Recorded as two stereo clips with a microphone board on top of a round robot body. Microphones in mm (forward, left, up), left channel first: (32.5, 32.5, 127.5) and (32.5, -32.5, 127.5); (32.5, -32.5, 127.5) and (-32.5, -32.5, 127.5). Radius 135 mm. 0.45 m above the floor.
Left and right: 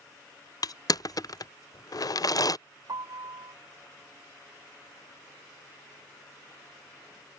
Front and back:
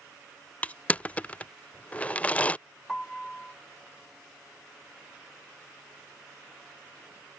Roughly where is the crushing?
Left.